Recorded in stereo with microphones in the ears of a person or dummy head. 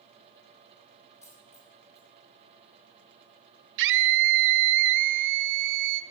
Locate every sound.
1.2 s a dropped coin: 10° left (ahead or behind), 1.8 m
3.8 s a scream: 60° right (ahead or behind), 0.9 m